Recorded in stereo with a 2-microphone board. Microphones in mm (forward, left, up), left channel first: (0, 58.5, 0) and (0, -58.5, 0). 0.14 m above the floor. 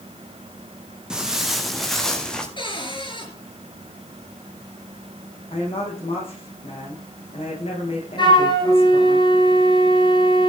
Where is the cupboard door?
45° left (ahead or behind), 3 m.